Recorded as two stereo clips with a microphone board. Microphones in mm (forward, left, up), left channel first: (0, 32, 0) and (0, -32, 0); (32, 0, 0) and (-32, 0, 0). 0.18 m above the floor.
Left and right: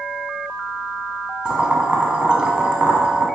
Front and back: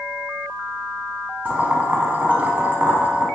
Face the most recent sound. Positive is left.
turn(degrees=-145)